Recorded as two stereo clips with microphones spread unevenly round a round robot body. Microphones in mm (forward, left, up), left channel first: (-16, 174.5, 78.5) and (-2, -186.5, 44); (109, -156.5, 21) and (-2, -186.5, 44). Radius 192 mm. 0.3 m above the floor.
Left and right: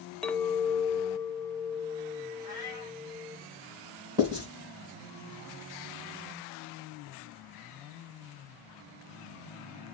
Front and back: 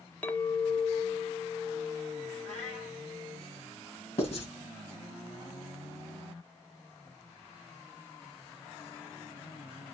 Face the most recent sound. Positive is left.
turn(degrees=-10)